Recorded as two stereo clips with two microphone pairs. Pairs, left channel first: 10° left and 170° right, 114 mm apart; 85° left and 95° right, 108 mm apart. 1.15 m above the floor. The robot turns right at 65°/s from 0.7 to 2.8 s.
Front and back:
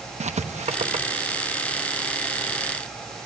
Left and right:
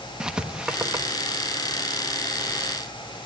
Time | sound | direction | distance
0.2 | writing | straight behind | 1.1 m